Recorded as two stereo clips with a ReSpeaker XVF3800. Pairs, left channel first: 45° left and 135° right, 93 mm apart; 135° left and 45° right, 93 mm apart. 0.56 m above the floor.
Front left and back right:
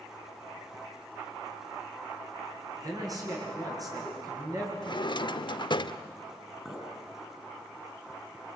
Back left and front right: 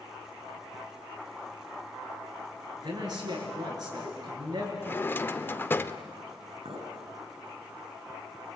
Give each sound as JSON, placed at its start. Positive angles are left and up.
{"t": 2.8, "sound": "a man speaking", "azimuth_deg": -85, "distance_m": 7.5}
{"t": 4.8, "sound": "a drawer", "azimuth_deg": 70, "distance_m": 0.7}
{"t": 6.7, "sound": "a clink", "azimuth_deg": -55, "distance_m": 4.5}